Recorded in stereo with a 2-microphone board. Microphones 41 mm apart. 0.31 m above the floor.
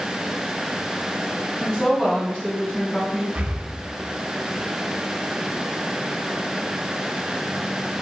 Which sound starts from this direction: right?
Breathing, at 3.4 s.